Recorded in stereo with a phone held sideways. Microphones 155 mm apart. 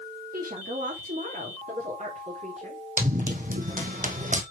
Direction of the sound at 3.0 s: 50° right (ahead or behind).